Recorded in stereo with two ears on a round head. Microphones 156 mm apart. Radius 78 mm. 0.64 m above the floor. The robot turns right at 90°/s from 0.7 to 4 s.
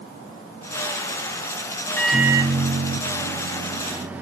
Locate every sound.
2.0 s a microwave: 165° left, 0.6 m; by 4.2 s 10° right, 0.6 m